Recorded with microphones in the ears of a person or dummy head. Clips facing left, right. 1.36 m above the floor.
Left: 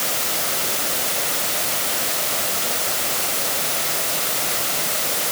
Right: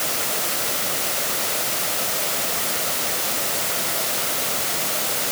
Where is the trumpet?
No trumpet in this recording.